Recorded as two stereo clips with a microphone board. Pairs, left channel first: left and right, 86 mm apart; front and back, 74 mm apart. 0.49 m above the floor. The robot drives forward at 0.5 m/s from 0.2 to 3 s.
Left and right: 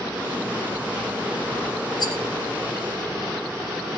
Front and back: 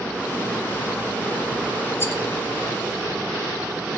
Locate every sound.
2.0 s a rattle: 60° left, 2 m